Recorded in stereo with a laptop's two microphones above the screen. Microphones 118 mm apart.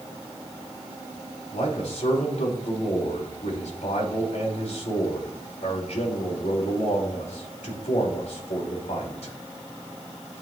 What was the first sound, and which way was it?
A man speaking, 85° left.